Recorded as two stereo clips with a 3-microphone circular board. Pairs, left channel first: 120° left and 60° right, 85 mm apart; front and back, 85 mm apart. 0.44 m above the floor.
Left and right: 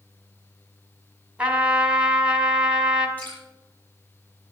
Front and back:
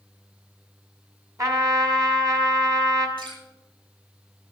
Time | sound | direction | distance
1.4 | a trumpet | 135° right | 1.6 m
3.2 | dripping | 170° right | 7.5 m